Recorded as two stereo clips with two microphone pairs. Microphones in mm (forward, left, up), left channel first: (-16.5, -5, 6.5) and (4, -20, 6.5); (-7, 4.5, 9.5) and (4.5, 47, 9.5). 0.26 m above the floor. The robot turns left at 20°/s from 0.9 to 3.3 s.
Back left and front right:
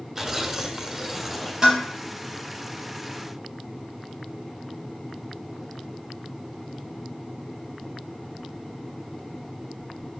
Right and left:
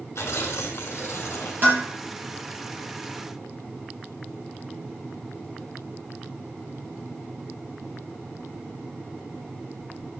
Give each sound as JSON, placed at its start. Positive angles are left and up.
{"t": 0.1, "sound": "tearing paper", "azimuth_deg": -120, "distance_m": 2.0}
{"t": 1.6, "sound": "dishes clattering", "azimuth_deg": 30, "distance_m": 4.0}